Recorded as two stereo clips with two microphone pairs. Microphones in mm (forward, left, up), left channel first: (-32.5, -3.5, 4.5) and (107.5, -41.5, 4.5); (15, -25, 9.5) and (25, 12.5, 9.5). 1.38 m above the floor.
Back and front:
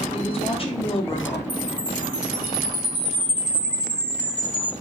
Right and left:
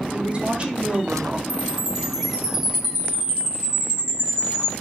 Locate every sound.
0.1 s a woman speaking: 125° left, 0.6 m
1.5 s a chime: 5° left, 0.8 m